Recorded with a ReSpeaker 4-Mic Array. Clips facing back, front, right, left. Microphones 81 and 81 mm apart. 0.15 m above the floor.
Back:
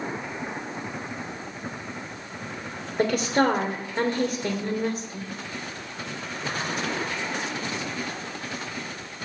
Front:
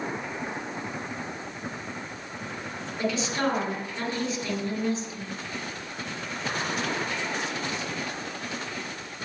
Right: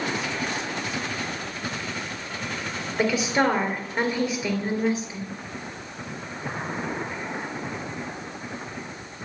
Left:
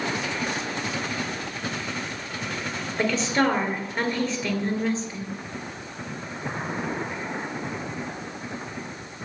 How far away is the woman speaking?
About 3 m.